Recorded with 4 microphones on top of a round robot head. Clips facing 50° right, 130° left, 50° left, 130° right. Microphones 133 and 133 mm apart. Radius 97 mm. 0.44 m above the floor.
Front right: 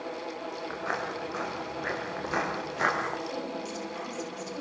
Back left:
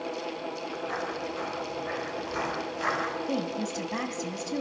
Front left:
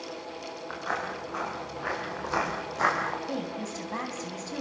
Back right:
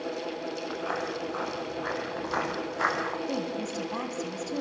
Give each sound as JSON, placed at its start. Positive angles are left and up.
{"t": 0.7, "sound": "footsteps", "azimuth_deg": -50, "distance_m": 7.5}
{"t": 3.3, "sound": "a woman speaking", "azimuth_deg": 155, "distance_m": 3.5}